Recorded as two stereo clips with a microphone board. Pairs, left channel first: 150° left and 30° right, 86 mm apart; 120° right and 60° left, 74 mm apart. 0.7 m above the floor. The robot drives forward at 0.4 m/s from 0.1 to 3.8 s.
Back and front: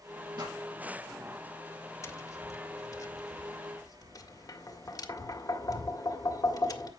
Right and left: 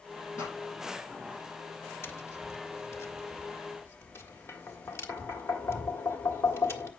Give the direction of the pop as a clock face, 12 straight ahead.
2 o'clock.